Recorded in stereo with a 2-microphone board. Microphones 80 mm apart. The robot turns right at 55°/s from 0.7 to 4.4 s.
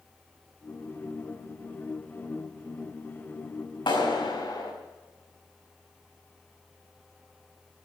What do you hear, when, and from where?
3.9 s a clap: 80° left, 5 m; by 4.7 s 50° left (ahead or behind), 5 m